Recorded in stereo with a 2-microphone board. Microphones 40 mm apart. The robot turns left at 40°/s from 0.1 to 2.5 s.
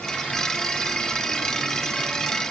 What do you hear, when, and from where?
Only background noise.